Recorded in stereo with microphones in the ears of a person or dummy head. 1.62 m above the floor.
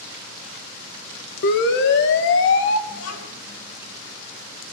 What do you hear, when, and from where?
1.4 s a siren: 60° left (ahead or behind), 2.5 m; by 2.8 s 75° left (ahead or behind), 2 m
2.9 s a child speaking: 80° left, 9.5 m